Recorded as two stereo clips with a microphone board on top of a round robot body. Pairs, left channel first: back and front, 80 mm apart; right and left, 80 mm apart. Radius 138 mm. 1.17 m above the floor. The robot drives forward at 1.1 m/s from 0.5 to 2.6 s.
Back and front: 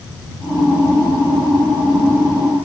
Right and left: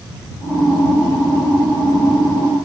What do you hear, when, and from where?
Only background noise.